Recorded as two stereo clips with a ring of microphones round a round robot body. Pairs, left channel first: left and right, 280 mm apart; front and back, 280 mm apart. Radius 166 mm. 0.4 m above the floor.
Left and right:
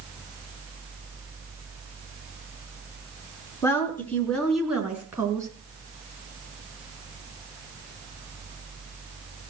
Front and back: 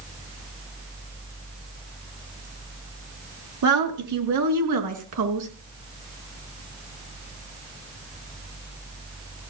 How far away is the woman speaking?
About 5 m.